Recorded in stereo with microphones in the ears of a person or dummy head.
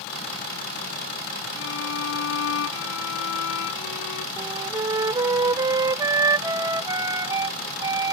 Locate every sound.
1.6 s a violin: 75° left (ahead or behind)
4.4 s a flute: 20° right (ahead or behind)